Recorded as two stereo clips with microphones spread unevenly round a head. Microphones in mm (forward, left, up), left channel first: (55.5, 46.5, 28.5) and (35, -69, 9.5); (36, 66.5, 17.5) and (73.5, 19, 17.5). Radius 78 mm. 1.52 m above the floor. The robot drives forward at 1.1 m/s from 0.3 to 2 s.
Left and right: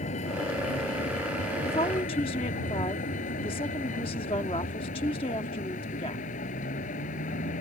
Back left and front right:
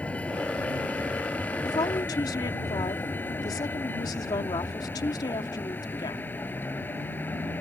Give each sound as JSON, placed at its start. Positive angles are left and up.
{"t": 0.0, "sound": "a vehicle", "azimuth_deg": 60}
{"t": 1.6, "sound": "a woman speaking", "azimuth_deg": 130}